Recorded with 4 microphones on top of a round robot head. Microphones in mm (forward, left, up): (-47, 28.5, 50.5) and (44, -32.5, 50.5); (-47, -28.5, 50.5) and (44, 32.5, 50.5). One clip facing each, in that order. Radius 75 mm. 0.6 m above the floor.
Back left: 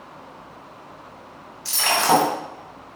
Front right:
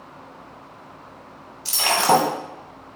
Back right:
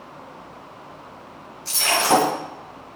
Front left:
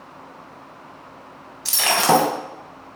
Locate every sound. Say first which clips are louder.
1.6 s breaking glass: front right 1 dB, front left 2 dB; 35° left, 3 m